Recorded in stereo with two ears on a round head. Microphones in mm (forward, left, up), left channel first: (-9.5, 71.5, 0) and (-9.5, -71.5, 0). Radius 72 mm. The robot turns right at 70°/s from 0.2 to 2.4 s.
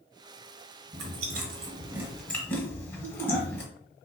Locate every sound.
0.9 s chewing: 70° right (ahead or behind), 1.1 m; by 3.6 s 15° left (ahead or behind), 1.1 m